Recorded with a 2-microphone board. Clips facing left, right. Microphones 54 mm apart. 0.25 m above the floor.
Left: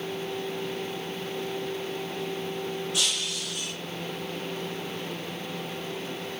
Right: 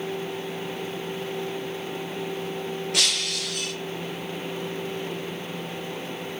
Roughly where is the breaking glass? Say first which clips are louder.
Right 3 dB; right.